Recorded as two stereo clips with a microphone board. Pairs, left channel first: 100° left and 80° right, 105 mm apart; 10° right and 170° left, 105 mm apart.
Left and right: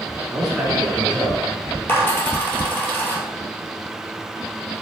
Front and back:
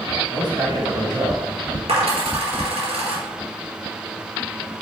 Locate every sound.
0.3 s a man speaking: 165° right, 3 m; by 1.8 s 155° right, 4 m
1.9 s a dropped coin: 165° left, 2.5 m